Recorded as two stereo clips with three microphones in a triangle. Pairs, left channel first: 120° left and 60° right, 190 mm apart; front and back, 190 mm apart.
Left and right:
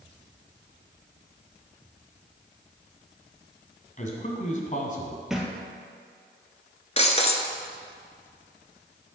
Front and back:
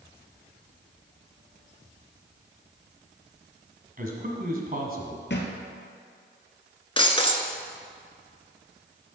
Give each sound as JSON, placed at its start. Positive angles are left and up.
{"t": 4.0, "sound": "a man speaking", "azimuth_deg": 155, "distance_m": 1.6}
{"t": 5.3, "sound": "a thud", "azimuth_deg": 30, "distance_m": 1.3}
{"t": 7.0, "sound": "breaking glass", "azimuth_deg": 65, "distance_m": 0.8}